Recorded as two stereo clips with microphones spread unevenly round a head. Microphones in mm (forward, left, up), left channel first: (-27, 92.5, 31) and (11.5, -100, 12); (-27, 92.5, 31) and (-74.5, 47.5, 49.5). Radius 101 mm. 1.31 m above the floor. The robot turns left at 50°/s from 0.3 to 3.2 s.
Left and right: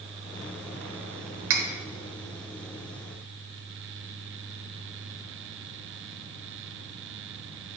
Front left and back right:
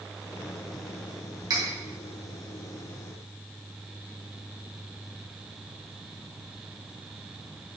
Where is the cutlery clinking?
100° right, 0.8 m; by 1.6 s 110° right, 0.8 m.